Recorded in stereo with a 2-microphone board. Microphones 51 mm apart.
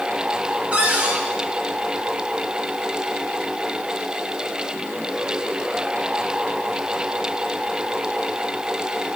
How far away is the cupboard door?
About 1.8 m.